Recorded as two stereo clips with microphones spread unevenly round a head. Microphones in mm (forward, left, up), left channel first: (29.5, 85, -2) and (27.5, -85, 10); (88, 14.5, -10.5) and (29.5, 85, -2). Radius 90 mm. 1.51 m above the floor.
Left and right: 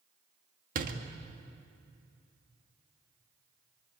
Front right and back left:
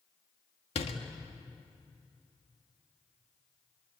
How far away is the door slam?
About 1.8 m.